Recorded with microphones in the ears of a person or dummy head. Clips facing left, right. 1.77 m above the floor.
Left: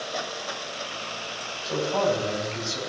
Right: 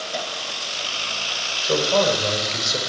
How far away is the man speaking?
About 8 m.